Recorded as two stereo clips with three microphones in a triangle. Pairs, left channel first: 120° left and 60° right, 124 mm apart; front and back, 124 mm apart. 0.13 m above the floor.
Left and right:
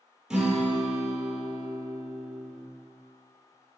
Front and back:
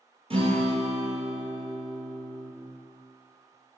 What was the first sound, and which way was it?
A guitar, 145° right.